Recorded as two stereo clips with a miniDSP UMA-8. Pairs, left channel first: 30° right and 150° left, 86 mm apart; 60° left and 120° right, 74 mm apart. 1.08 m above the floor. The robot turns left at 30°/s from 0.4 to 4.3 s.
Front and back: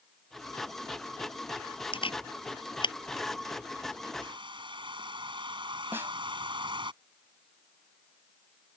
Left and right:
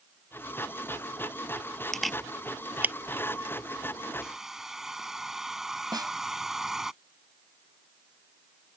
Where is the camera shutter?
25° right; by 3.0 s 55° right.